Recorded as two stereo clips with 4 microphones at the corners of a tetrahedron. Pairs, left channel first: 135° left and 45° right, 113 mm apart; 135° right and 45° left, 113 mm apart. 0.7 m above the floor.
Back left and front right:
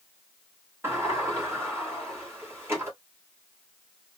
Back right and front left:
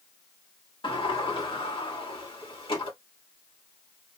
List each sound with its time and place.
0.8 s a sliding door: 110° right, 1.6 m